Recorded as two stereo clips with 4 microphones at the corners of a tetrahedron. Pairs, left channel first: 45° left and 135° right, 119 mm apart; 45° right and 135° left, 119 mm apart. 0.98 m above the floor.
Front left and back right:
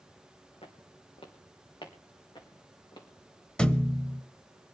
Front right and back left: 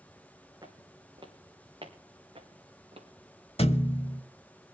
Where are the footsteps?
80° left, 3 m; by 3.1 s 95° left, 5 m.